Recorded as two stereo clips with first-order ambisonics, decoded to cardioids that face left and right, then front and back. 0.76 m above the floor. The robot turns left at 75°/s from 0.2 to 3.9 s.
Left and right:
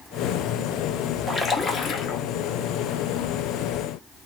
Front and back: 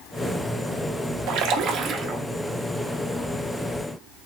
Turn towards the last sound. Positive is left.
turn(degrees=-25)